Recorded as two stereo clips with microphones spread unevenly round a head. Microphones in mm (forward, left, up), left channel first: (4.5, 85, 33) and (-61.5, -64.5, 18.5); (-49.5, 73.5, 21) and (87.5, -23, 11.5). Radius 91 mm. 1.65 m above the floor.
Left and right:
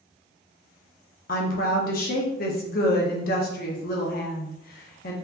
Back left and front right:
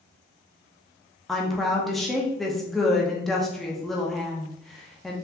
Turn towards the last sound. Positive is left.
turn(degrees=60)